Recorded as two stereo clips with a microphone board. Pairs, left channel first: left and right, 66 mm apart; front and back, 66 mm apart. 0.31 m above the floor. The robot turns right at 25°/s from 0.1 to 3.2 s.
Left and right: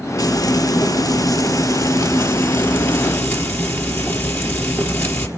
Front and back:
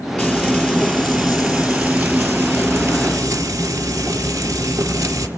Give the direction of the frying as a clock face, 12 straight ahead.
10 o'clock.